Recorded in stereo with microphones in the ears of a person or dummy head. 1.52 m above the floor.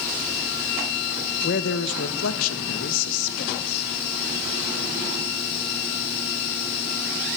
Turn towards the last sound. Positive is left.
turn(degrees=55)  # may be behind; listen again after turning